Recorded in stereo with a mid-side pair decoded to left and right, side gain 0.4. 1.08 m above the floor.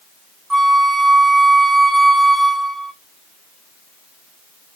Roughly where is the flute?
Ahead right.